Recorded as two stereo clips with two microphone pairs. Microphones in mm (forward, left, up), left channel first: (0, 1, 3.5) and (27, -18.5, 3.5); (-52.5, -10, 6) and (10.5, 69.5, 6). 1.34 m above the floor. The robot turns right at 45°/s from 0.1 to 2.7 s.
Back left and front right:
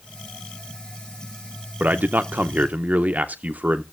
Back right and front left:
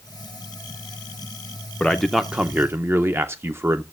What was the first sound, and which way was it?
A man speaking, 50° right.